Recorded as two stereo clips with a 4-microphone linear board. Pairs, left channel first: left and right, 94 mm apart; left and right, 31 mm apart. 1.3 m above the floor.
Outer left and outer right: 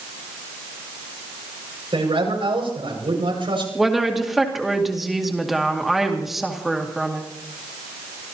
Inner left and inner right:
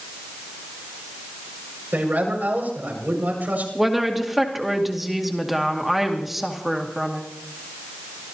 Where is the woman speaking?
Centre (ahead or behind), 2 m.